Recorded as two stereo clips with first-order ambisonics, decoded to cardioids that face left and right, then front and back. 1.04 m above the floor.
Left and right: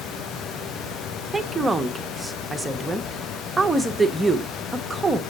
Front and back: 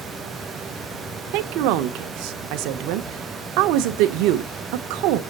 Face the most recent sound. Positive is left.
turn(degrees=-175)